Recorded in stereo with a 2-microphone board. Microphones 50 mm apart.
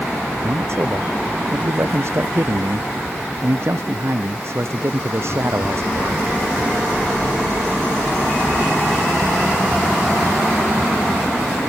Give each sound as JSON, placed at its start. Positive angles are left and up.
{"t": 0.4, "sound": "a man speaking", "side_deg": -55}